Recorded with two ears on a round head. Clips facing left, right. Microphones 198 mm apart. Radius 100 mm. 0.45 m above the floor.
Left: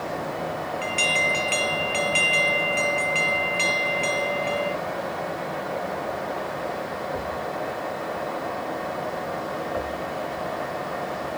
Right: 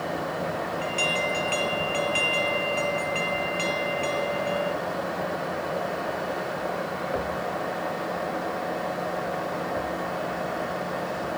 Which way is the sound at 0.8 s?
25° left (ahead or behind).